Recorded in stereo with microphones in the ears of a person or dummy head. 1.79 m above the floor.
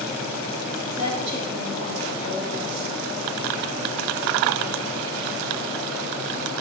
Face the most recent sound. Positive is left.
turn(degrees=-35)  # may be behind; listen again after turning